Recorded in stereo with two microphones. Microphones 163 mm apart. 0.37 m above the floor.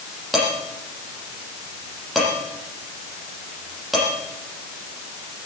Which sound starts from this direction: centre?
Dishes clattering, at 0.3 s.